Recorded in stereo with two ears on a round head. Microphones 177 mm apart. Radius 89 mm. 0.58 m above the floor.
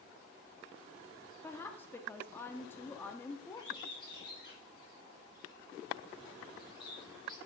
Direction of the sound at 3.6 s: 25° left (ahead or behind).